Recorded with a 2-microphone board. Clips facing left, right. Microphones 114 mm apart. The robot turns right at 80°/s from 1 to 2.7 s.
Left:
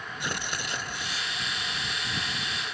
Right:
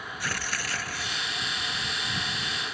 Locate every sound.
0.2 s tearing paper: 20° left (ahead or behind); by 1.4 s 10° right (ahead or behind)